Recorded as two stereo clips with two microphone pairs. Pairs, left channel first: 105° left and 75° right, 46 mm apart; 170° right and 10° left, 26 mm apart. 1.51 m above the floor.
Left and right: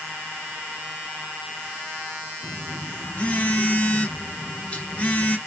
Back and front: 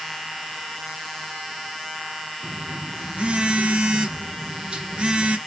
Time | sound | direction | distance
2.4 | a phone buzzing | 50° left | 0.5 m